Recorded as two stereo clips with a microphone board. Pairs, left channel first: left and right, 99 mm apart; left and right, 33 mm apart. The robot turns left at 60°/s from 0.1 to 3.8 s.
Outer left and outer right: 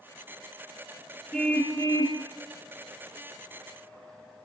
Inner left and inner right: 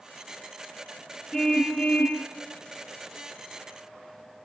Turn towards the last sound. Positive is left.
turn(degrees=25)